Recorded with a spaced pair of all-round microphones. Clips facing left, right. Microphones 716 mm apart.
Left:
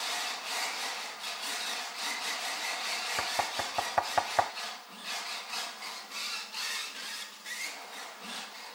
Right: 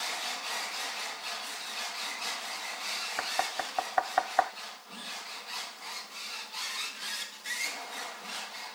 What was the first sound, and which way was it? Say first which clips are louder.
Knocking: right 1 dB; 55° left (ahead or behind).